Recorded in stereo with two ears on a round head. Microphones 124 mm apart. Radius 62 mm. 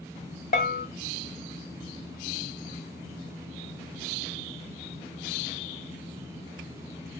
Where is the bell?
60° left (ahead or behind), 0.5 m.